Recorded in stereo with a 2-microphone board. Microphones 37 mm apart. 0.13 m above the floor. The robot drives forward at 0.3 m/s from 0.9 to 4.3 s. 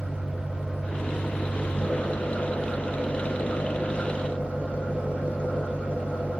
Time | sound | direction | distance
0.0 | an engine running | 60° left (ahead or behind) | 5 m